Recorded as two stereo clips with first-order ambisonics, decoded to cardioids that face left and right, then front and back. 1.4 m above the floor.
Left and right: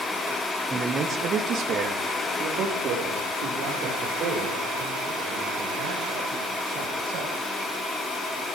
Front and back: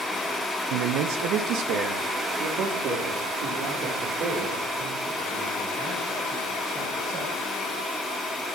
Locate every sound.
0.7 s a man speaking: 160° right, 1.2 m; by 7.3 s 130° right, 9.5 m